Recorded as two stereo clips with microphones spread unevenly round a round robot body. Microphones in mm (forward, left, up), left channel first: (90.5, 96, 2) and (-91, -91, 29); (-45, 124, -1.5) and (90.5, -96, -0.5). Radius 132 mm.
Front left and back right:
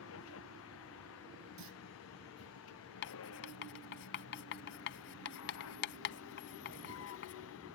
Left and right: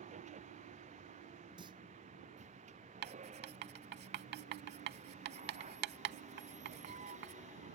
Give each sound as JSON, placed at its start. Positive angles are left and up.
{"t": 0.0, "sound": "a vehicle", "azimuth_deg": 5}
{"t": 1.6, "sound": "a clunk", "azimuth_deg": -130}
{"t": 3.0, "sound": "writing", "azimuth_deg": -5}